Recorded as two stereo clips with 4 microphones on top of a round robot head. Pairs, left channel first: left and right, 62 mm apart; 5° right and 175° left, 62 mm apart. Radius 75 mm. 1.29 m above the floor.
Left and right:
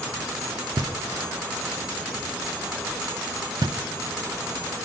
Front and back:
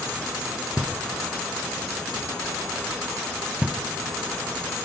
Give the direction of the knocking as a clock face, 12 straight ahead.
3 o'clock.